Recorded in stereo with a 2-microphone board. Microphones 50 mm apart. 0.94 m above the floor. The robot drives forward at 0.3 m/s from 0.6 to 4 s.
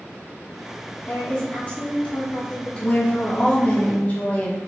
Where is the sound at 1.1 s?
35° left (ahead or behind), 1.1 m; by 3.8 s 20° left (ahead or behind), 1.7 m.